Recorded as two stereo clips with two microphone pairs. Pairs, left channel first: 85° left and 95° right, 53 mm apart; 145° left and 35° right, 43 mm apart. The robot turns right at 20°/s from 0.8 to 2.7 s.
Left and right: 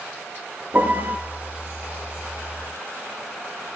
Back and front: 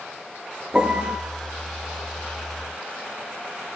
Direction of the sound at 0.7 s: 90° right.